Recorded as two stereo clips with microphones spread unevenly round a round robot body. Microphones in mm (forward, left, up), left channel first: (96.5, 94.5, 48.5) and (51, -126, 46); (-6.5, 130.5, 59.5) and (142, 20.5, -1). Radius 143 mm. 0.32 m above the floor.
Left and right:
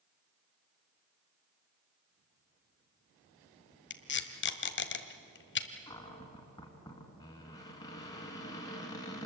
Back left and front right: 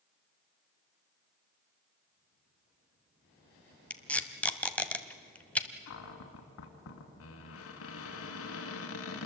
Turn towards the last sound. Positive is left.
turn(degrees=155)